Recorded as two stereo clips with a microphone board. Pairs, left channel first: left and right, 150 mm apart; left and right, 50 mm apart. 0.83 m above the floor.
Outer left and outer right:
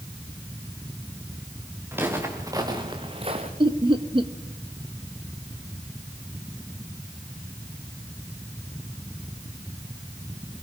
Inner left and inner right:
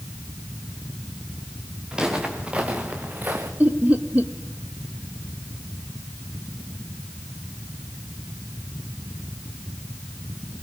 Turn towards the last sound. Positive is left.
turn(degrees=-35)  # may be behind; listen again after turning